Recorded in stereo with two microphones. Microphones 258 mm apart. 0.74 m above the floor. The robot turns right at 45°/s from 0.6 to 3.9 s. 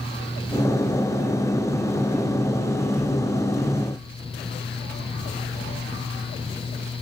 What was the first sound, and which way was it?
Only background noise.